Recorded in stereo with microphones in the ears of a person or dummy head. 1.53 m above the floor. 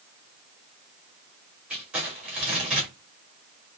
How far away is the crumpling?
About 1.7 m.